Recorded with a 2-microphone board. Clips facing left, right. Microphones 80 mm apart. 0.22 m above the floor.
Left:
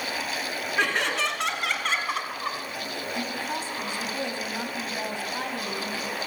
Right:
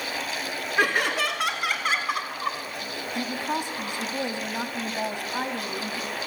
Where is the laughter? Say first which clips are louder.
Right 2 dB; 5° right (ahead or behind), 2.5 m; by 2.6 s centre (ahead or behind), 1.7 m.